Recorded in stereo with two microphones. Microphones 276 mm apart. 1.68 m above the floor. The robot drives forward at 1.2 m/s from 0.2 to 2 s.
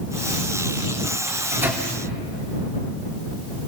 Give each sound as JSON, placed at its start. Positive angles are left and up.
{"t": 1.3, "sound": "a microwave", "side_deg": -10, "distance_m": 3.5}